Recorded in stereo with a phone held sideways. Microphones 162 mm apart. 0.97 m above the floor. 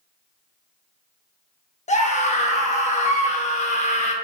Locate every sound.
1.9 s a scream: 45° left (ahead or behind), 0.6 m